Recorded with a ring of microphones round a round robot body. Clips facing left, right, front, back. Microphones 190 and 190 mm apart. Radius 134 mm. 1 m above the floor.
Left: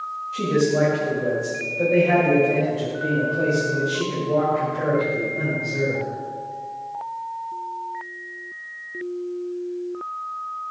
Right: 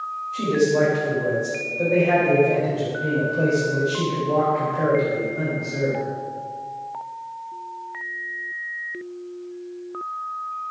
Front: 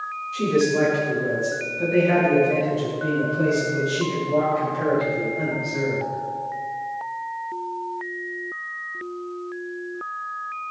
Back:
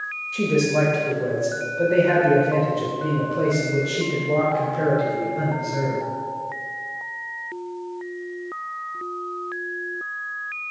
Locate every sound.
0.3 s a man speaking: 165° left, 3.5 m; by 6.0 s 135° right, 3 m